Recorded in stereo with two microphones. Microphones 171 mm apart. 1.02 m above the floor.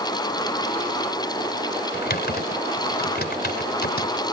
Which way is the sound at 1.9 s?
70° left (ahead or behind).